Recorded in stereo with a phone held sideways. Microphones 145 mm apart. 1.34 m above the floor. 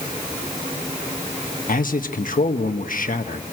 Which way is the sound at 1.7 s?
70° left (ahead or behind).